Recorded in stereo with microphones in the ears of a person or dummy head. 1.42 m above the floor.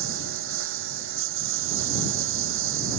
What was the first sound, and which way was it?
A lawn mower, 85° right.